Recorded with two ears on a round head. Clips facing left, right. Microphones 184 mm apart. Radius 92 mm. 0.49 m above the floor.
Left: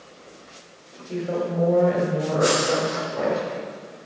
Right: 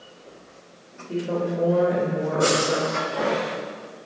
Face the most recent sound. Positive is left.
turn(degrees=-40)  # may be behind; listen again after turning